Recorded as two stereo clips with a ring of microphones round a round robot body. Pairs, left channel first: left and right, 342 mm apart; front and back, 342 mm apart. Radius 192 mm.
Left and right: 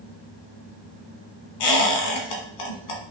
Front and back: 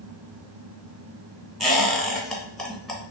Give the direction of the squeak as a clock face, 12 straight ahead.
9 o'clock.